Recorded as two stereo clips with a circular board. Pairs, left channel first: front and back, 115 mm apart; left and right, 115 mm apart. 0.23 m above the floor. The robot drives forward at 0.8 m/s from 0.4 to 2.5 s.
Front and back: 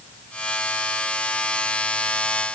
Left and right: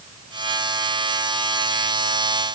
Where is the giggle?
No giggle in this recording.